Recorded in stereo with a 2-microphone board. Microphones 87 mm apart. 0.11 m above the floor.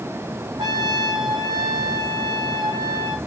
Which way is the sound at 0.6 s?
65° right (ahead or behind).